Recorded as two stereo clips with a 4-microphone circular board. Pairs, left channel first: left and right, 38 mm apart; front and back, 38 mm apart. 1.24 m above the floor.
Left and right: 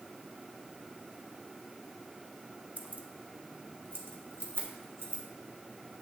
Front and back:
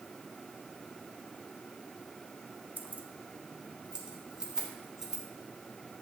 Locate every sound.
2.8 s keys jangling: 135° right, 0.9 m; by 5.2 s 100° right, 2.5 m